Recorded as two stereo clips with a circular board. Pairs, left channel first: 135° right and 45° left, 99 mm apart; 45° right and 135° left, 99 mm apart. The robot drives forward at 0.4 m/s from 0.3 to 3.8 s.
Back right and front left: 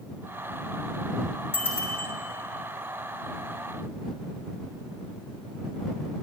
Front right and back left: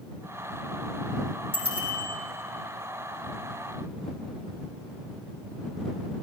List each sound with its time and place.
1.5 s a bicycle bell: 70° right, 7 m